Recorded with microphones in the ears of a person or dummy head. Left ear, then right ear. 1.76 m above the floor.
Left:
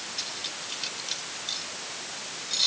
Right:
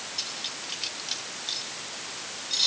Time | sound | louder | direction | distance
0.2 | cutlery clinking | right 1 dB | 5° right (ahead or behind) | ?